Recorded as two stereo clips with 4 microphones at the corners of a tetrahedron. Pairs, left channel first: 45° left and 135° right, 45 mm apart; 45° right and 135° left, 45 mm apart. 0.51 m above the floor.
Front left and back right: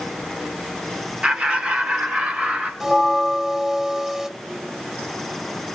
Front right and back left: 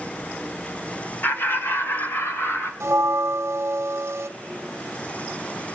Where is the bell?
150° left, 0.7 m.